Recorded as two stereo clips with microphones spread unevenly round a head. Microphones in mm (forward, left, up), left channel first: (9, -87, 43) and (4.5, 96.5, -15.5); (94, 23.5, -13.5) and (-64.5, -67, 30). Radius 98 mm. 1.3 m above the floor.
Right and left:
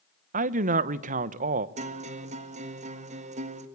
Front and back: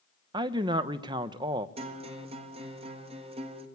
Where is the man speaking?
140° left, 1.0 m.